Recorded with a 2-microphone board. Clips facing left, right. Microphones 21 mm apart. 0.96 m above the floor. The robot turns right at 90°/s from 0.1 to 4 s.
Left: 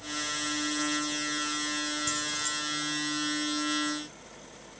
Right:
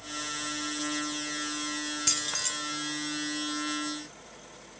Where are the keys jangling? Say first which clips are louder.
Right 1 dB; 75° right, 1.9 m; by 2.5 s 35° right, 1.9 m.